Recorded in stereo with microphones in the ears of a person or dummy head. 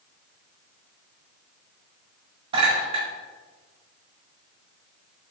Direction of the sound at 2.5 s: 40° right (ahead or behind).